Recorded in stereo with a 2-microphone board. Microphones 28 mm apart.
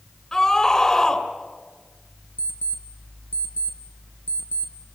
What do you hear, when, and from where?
0.3 s a scream: 15° left (ahead or behind), 3.5 m
2.4 s an alarm clock: 70° right (ahead or behind), 2.5 m